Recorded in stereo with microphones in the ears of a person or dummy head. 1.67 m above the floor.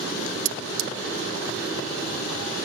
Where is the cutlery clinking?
75° right (ahead or behind).